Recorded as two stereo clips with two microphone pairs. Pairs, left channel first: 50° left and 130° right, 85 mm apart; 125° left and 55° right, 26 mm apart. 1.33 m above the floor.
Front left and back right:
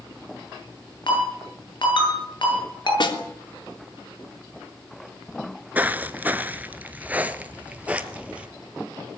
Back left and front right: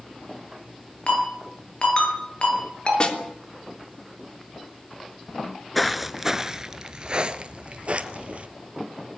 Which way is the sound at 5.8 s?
150° right.